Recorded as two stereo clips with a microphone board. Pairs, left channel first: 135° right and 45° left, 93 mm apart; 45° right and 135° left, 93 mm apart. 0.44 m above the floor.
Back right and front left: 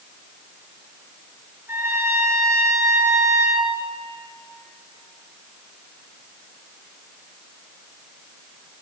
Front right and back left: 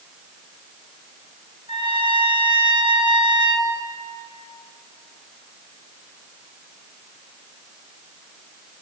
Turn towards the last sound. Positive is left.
turn(degrees=110)